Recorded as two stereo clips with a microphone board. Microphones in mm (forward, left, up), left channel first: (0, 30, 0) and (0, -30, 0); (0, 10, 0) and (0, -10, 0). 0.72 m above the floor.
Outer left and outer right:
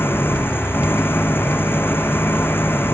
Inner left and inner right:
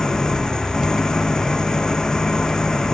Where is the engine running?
35° left (ahead or behind).